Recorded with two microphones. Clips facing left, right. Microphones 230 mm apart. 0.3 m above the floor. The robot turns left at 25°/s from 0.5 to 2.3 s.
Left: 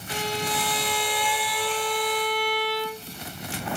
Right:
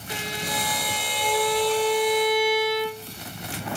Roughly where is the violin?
Behind.